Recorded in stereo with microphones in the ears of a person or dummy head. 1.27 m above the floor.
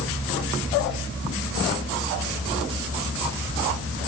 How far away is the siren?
No siren in this recording.